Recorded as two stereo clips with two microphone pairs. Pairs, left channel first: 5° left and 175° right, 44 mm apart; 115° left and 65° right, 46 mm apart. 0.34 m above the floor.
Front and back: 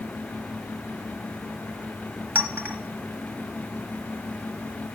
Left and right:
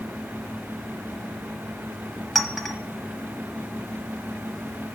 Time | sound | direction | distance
2.4 | a clink | 160° right | 1.0 m